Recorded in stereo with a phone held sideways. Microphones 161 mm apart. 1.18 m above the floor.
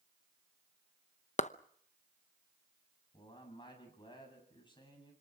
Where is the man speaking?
30° left (ahead or behind), 8 m.